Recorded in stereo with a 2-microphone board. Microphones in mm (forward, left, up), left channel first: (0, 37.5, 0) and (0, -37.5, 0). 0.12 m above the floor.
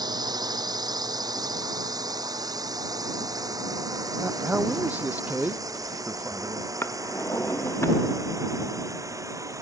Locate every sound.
0.0 s a drone: 65° right (ahead or behind); by 9.6 s 45° right (ahead or behind)
4.2 s a man speaking: 20° right (ahead or behind)
6.8 s a drawer: 35° left (ahead or behind)